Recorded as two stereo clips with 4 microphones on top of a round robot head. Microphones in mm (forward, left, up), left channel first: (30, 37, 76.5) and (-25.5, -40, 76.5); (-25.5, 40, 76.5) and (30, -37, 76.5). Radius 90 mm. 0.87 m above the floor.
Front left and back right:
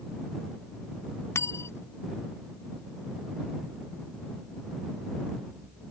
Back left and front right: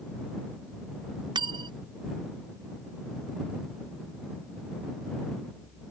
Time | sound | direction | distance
1.4 | cutlery clinking | 10° right | ?